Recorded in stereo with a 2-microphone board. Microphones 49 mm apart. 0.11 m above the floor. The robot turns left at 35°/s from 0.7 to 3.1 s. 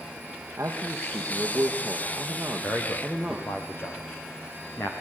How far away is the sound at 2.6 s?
About 5.5 m.